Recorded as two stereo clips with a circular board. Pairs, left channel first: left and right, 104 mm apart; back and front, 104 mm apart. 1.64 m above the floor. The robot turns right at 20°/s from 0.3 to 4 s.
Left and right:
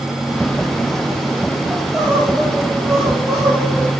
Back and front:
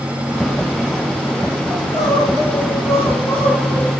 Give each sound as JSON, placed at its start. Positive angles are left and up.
{"t": 1.7, "sound": "crying", "azimuth_deg": 180, "distance_m": 6.0}